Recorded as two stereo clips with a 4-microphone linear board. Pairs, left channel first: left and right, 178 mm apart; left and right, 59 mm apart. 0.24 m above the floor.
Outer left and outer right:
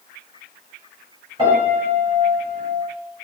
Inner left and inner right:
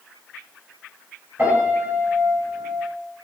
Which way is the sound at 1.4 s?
30° right (ahead or behind).